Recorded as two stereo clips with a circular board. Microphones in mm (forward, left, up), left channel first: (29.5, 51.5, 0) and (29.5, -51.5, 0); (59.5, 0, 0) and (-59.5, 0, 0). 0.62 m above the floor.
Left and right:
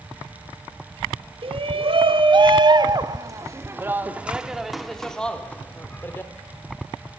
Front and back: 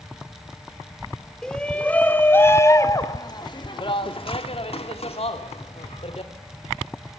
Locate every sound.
1.4 s a shout: 85° right, 1.8 m; by 6.3 s 25° left, 1.9 m